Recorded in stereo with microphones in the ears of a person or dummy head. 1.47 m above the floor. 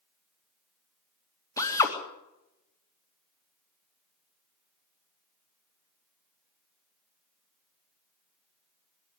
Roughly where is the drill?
Left.